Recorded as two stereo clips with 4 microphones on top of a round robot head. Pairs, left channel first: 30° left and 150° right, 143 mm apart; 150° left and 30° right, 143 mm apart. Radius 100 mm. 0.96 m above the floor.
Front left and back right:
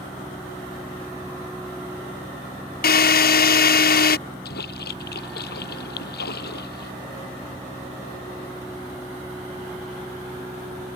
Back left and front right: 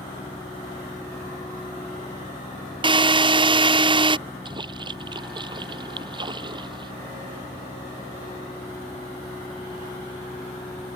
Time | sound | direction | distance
2.8 | a drill | 25° left | ?
4.5 | a splash | 30° left | ?